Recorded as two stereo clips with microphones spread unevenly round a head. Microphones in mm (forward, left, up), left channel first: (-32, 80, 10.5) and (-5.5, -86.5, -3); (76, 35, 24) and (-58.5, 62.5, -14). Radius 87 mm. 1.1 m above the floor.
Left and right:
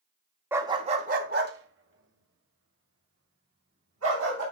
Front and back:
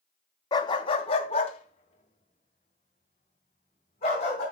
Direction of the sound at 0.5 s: Straight ahead.